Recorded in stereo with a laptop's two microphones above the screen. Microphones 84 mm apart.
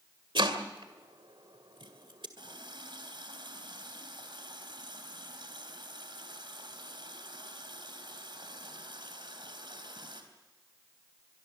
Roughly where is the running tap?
Right.